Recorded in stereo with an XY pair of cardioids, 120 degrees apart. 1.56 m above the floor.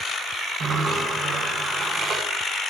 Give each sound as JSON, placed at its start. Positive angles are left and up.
{"t": 0.6, "sound": "a sliding door", "azimuth_deg": -50, "distance_m": 7.5}